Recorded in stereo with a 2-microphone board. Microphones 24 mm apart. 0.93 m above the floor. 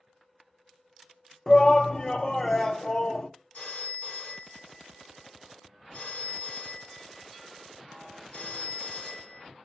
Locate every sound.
1.5 s a shout: 25° left (ahead or behind), 0.5 m
3.5 s a phone ringing: 70° left (ahead or behind), 1.9 m